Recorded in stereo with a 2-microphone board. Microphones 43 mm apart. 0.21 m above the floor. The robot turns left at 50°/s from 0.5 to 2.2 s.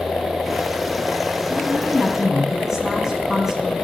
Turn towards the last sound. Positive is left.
turn(degrees=-15)